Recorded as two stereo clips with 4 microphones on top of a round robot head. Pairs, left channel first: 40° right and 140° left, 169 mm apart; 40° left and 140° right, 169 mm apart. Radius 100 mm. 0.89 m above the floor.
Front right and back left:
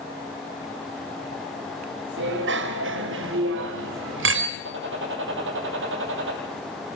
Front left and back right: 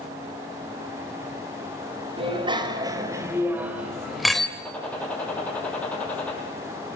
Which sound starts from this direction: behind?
A bicycle bell, at 2.2 s.